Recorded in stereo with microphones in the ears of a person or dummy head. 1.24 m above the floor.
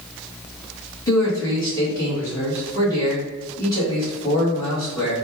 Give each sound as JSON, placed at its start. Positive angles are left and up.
{"t": 1.1, "sound": "a man speaking", "side_deg": 20, "distance_m": 1.7}